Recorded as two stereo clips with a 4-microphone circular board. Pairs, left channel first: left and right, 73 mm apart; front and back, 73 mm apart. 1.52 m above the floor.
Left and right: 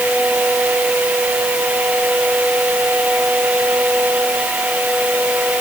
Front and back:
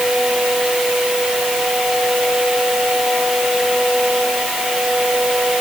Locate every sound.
Only background noise.